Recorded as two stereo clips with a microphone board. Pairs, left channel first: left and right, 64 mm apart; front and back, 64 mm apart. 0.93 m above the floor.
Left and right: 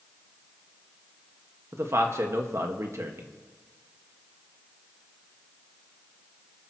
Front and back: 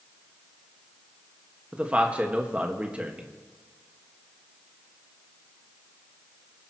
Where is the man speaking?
115° right, 1.4 m.